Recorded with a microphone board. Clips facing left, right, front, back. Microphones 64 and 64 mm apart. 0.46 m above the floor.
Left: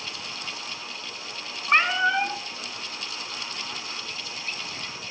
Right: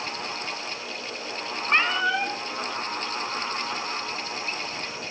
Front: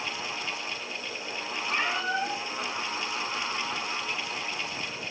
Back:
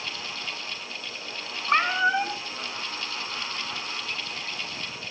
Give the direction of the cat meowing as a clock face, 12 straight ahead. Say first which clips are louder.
Left 2 dB, back 7 dB; 7 o'clock.